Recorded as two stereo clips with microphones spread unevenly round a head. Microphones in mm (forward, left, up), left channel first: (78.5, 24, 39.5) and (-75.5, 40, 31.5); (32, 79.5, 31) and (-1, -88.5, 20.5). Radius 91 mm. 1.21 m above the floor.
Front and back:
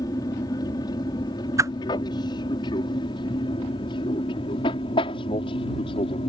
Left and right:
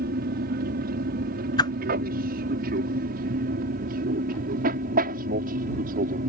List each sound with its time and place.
0.0 s an aircraft: 75° right; by 6.3 s 65° right
1.6 s a whoosh: 130° left